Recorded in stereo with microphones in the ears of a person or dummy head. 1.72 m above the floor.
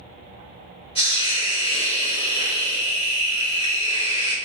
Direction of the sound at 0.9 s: 35° left (ahead or behind).